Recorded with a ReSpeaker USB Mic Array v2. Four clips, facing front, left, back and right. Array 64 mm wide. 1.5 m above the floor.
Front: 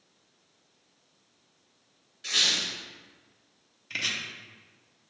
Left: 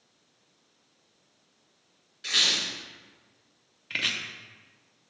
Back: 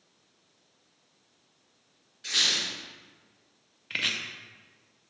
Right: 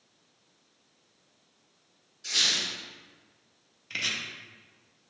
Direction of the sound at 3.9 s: 135° left.